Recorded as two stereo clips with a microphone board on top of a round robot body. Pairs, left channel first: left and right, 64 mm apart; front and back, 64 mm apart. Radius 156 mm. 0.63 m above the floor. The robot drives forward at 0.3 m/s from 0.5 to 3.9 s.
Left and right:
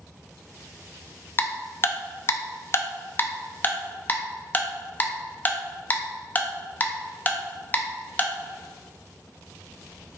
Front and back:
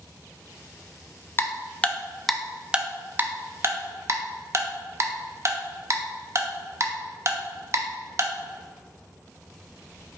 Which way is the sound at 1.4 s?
45° left.